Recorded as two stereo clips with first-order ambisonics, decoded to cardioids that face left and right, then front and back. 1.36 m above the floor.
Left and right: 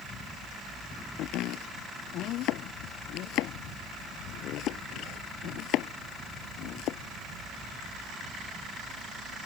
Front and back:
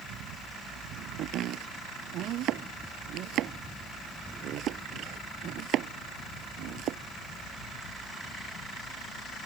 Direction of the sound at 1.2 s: 135° left.